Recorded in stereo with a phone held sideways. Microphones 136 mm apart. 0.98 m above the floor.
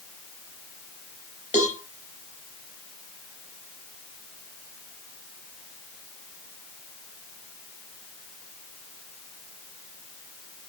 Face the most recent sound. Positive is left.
turn(degrees=55)  # may be behind; listen again after turning